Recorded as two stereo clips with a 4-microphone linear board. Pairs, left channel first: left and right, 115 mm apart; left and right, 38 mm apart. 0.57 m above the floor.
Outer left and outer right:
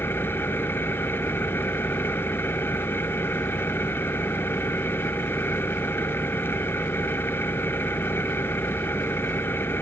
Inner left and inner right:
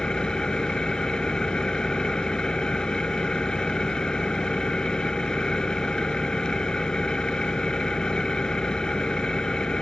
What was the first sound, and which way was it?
An engine running, 20° left (ahead or behind).